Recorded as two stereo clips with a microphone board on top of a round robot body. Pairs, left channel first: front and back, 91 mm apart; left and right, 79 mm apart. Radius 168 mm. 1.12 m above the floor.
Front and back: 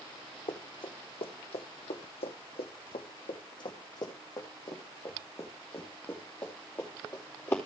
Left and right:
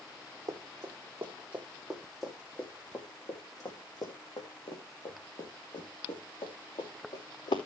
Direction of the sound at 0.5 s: 40° right.